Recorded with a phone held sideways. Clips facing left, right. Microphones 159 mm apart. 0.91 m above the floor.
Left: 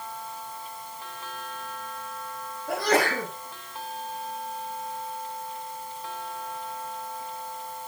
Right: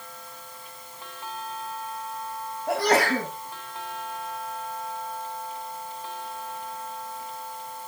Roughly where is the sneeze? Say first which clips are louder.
Right 2 dB; right.